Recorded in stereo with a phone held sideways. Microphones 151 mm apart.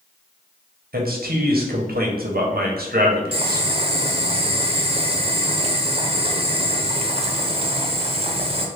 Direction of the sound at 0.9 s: 85° right.